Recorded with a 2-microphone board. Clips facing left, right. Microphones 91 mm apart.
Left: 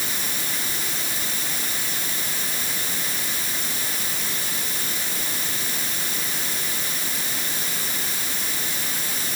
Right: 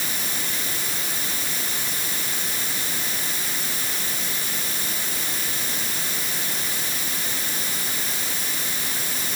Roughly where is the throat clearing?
I don't hear throat clearing.